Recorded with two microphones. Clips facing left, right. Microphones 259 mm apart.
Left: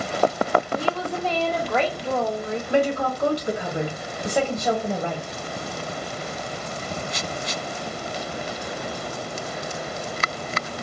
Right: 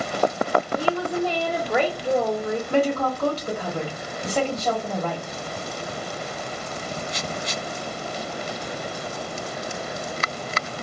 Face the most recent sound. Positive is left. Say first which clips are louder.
# left 1 dB
turn(degrees=15)  # may be behind; listen again after turning